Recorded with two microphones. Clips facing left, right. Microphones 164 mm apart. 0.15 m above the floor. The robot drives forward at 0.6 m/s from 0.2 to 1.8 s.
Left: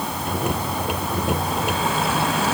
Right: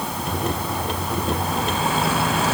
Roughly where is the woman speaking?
No woman speaking in this recording.